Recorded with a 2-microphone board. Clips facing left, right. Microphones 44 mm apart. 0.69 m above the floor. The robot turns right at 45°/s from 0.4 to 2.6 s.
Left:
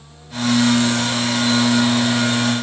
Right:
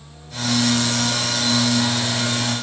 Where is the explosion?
No explosion in this recording.